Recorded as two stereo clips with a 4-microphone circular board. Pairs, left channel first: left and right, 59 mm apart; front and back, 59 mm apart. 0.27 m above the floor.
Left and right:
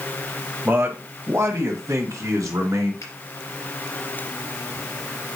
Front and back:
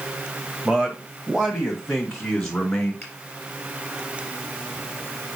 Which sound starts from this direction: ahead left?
A finger snap, at 3.0 s.